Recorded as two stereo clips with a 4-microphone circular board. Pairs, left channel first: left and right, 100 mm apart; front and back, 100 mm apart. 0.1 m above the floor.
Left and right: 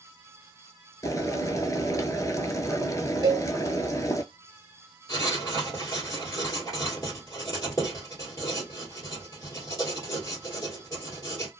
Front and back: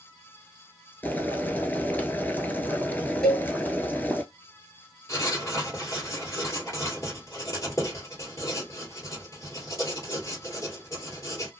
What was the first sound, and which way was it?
Boiling, 60° left.